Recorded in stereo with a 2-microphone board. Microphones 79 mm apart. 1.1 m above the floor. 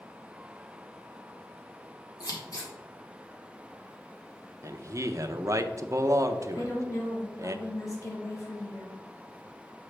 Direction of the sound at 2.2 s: 50° left (ahead or behind).